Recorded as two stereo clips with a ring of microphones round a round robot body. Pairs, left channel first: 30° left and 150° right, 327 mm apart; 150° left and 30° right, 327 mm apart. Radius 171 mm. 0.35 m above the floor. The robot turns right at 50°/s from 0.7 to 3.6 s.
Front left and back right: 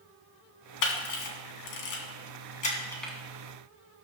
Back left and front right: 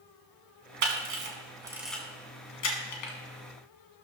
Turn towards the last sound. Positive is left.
turn(degrees=145)